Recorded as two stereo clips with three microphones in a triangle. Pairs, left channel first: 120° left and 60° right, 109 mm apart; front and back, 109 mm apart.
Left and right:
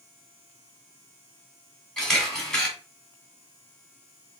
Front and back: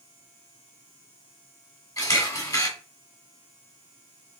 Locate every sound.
2.0 s a camera shutter: 35° left, 1.7 m